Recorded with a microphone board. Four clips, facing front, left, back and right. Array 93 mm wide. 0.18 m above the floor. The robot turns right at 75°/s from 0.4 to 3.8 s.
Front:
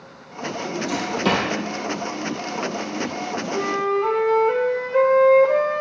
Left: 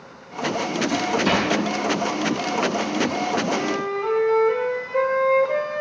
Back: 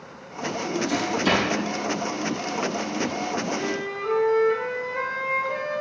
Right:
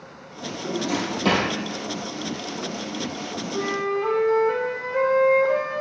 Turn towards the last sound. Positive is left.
turn(degrees=15)